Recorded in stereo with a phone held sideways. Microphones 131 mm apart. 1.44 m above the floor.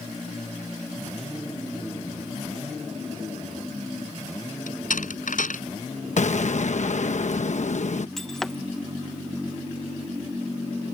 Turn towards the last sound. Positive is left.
turn(degrees=5)  # may be behind; listen again after turning